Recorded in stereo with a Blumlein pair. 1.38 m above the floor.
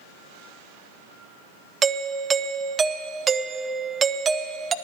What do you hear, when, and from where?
1.8 s a doorbell: 20° right, 0.6 m